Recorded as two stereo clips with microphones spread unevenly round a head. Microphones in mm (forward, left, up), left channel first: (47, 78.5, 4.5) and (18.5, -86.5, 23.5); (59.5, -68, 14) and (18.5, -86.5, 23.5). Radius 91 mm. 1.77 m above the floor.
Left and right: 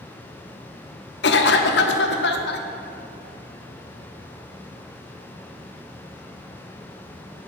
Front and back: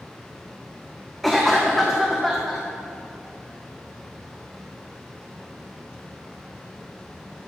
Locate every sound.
1.2 s a cough: 115° left, 0.7 m